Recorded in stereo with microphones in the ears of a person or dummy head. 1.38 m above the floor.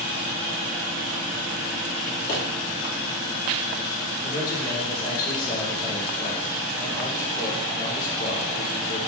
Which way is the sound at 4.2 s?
55° left (ahead or behind).